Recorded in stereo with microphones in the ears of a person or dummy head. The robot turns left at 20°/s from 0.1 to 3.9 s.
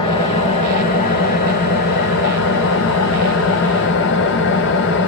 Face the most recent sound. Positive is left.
turn(degrees=70)